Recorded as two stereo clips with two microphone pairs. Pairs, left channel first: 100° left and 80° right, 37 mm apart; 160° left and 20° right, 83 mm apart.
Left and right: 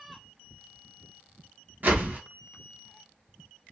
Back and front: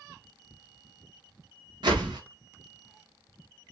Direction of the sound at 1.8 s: 40° right.